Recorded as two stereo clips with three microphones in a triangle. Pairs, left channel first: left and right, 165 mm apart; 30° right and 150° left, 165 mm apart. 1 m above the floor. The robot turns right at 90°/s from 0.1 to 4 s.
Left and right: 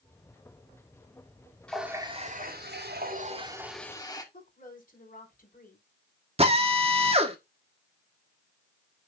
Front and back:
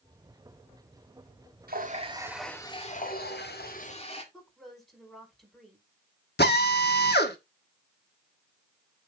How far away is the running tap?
About 1.8 m.